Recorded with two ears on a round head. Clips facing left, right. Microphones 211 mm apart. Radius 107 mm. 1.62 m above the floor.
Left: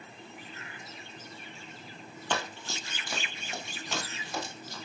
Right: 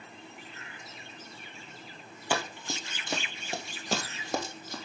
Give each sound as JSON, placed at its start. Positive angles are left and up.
{"t": 2.3, "sound": "running footsteps", "side_deg": -10, "distance_m": 1.8}